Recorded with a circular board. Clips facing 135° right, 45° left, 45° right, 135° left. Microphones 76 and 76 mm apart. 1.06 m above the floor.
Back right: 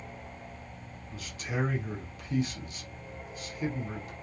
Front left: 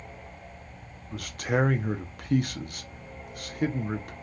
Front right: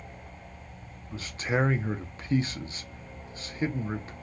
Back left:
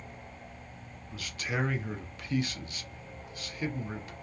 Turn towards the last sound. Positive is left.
turn(degrees=15)